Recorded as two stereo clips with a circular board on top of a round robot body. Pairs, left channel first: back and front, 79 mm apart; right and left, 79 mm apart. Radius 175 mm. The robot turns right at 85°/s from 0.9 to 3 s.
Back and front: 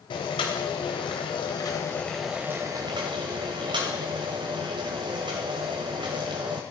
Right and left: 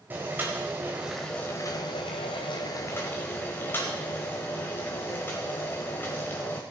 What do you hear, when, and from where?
0.1 s boiling: 160° left, 1.0 m; by 6.6 s 25° right, 1.0 m